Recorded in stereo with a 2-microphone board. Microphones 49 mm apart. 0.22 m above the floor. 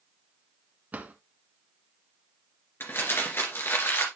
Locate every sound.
0.9 s a drawer: 35° right (ahead or behind), 1.2 m
2.8 s crumpling: 55° left (ahead or behind), 2.5 m